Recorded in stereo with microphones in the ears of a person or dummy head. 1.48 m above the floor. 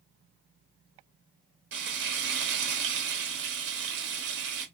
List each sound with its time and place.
1.7 s frying: 60° right (ahead or behind), 1.1 m